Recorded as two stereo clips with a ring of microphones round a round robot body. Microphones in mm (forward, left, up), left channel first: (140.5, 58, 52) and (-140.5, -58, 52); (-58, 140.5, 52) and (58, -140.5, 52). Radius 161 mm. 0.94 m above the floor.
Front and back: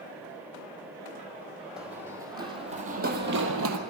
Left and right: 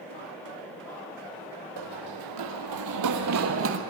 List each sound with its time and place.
1.8 s running footsteps: 70° right, 2 m; by 3.8 s 115° right, 1.7 m